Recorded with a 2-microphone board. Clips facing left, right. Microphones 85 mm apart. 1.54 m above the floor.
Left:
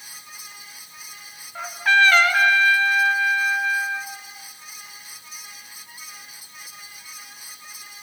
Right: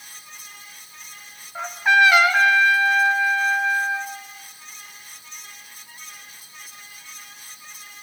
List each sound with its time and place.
1.6 s a trumpet: 15° right (ahead or behind), 2.5 m